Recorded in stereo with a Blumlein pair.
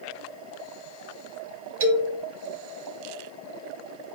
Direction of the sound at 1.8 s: 60° right.